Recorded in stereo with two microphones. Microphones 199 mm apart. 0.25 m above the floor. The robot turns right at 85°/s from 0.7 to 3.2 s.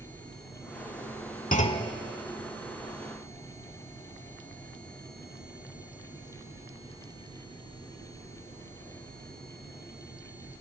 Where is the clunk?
135° left, 0.6 m; by 1.9 s 170° left, 0.6 m.